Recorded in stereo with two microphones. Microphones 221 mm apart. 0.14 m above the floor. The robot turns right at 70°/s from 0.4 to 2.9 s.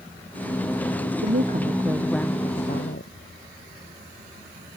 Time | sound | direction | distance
1.2 | a woman speaking | 60° right | ?